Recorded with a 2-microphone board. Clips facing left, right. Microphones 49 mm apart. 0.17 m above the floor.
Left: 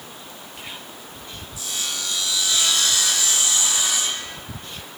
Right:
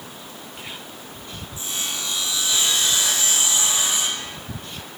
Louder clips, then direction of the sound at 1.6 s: Even; 30° right (ahead or behind).